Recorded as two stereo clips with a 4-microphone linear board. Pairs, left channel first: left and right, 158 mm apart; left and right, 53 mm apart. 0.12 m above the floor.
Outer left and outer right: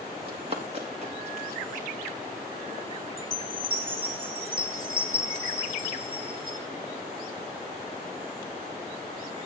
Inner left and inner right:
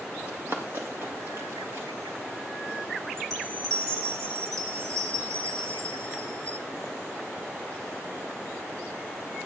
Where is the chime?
70° right (ahead or behind), 3 m.